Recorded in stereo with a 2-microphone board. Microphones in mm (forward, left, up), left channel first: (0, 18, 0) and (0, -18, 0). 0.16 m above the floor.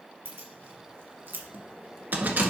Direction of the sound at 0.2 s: 70° right (ahead or behind).